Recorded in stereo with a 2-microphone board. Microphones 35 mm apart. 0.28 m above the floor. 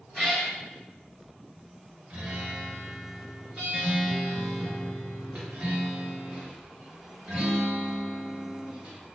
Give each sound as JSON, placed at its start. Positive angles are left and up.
{"t": 0.1, "sound": "a cat meowing", "side_deg": 5, "distance_m": 1.3}
{"t": 2.1, "sound": "a guitar", "side_deg": -35, "distance_m": 0.9}